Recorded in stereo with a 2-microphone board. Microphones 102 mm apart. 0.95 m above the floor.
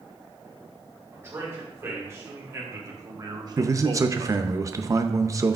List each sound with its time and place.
1.1 s a man speaking: 25° right (ahead or behind), 3 m; by 4.4 s 60° right (ahead or behind), 0.5 m
3.6 s a man speaking: 30° right (ahead or behind), 0.6 m